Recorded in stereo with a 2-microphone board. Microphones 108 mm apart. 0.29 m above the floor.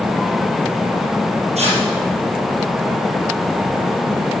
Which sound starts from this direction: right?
Tearing paper, at 1.6 s.